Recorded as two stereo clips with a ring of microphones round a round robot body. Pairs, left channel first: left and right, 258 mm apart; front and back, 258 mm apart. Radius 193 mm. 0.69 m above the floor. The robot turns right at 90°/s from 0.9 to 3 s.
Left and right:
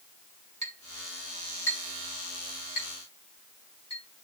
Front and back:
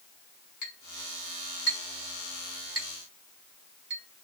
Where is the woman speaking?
No woman speaking in this recording.